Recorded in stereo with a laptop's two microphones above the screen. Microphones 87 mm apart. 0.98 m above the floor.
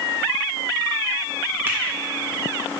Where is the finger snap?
25° right (ahead or behind), 1.9 m.